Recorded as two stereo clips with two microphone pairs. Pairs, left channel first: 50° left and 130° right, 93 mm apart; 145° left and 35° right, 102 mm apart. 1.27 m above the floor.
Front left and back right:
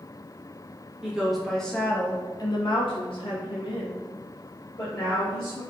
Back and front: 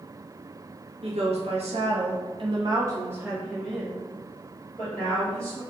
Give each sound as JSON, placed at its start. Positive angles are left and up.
{"t": 1.0, "sound": "a woman speaking", "azimuth_deg": -50, "distance_m": 1.0}